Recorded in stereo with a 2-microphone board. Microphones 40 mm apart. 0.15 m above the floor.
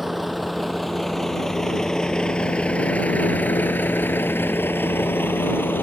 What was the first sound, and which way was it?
A vehicle, 5° right (ahead or behind).